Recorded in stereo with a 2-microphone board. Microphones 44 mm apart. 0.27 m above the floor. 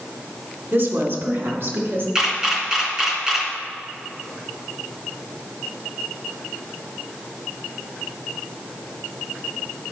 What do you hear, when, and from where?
0.7 s a woman speaking: 60° right (ahead or behind), 2.5 m; by 2.0 s 65° right (ahead or behind), 3.5 m
2.1 s a camera shutter: 20° right (ahead or behind), 2.5 m